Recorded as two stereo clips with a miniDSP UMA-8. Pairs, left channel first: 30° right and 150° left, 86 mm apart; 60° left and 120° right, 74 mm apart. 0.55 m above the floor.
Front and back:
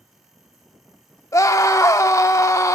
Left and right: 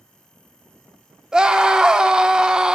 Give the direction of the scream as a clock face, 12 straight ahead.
2 o'clock.